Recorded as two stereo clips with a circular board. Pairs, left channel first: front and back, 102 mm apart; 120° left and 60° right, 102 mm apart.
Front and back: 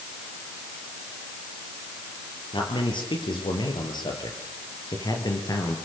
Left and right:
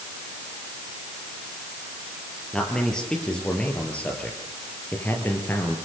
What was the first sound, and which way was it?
A man speaking, 35° left.